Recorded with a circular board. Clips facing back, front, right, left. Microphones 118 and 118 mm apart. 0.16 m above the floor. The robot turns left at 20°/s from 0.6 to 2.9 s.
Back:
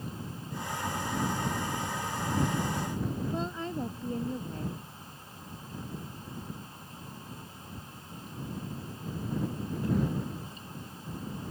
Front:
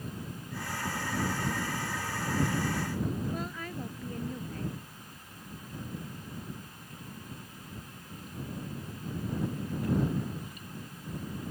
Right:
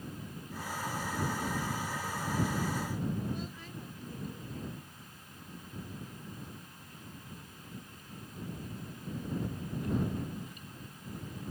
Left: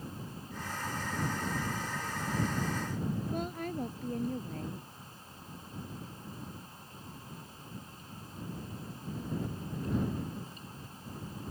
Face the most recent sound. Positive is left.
turn(degrees=115)